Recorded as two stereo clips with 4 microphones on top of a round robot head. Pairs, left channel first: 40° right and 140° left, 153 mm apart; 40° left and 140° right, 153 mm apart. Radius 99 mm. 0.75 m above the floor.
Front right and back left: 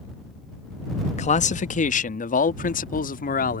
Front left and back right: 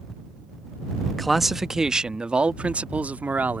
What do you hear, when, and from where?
1.2 s a man speaking: 50° right; by 3.6 s 60° right